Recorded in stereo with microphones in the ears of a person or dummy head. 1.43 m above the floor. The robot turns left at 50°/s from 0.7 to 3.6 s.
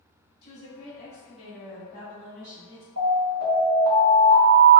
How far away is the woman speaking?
About 1.5 m.